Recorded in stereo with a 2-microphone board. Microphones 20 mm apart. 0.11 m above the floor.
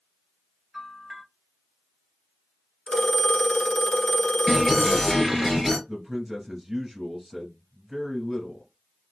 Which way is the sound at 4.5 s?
5° left (ahead or behind).